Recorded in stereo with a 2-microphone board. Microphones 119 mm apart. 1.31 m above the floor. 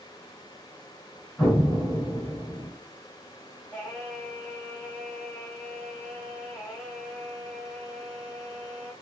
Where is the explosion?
15° left (ahead or behind), 3 m.